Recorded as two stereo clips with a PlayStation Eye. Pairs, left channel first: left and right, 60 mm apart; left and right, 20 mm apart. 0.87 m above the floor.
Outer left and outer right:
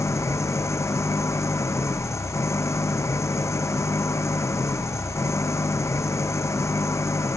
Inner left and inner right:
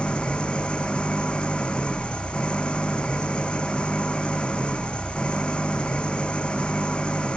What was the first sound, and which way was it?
An engine running, 50° left (ahead or behind).